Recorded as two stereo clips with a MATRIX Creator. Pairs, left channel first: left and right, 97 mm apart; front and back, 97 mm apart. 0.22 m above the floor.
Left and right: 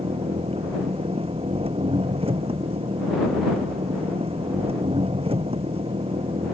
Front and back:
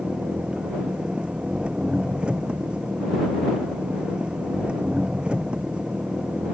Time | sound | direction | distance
0.0 | an engine running | 100° right | ?